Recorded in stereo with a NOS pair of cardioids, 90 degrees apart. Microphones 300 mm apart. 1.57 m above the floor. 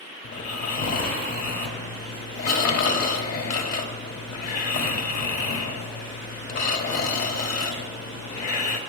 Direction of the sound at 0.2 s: 65° left.